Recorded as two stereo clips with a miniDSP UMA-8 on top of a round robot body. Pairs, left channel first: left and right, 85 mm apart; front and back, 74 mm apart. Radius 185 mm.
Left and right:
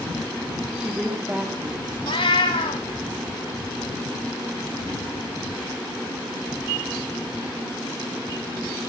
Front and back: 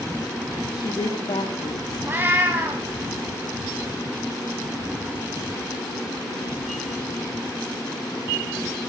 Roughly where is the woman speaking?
Ahead.